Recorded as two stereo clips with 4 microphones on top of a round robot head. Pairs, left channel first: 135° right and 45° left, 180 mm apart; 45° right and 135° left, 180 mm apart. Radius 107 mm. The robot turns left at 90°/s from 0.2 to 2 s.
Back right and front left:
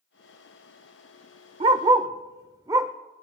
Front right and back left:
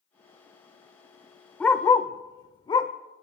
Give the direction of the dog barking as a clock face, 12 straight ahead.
11 o'clock.